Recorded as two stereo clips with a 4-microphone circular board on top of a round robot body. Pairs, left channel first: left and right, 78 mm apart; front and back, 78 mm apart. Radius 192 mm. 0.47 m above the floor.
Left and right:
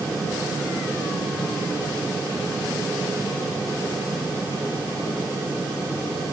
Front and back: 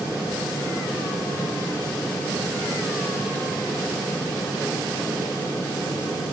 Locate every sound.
Only background noise.